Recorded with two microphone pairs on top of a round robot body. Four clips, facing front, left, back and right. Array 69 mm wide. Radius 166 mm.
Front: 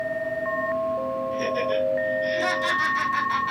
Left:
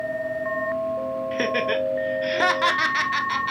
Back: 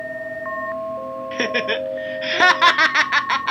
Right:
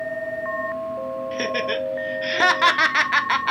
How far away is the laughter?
About 1.5 m.